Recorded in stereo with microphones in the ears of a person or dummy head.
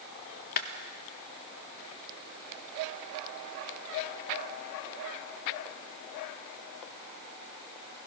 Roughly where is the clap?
Left.